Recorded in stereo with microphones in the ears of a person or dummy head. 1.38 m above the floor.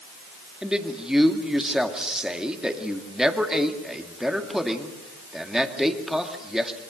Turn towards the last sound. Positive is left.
turn(degrees=0)  # may be behind; listen again after turning